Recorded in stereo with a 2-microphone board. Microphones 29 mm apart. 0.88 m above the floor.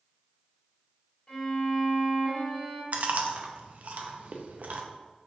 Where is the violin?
35° left (ahead or behind), 1.9 m.